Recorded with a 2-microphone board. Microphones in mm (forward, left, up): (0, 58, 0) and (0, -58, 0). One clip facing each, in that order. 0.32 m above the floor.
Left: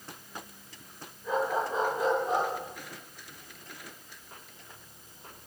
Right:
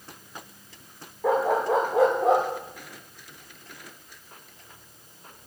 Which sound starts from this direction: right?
A dog barking, at 1.2 s.